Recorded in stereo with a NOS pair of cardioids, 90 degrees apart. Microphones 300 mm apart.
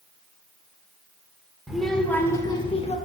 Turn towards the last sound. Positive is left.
turn(degrees=25)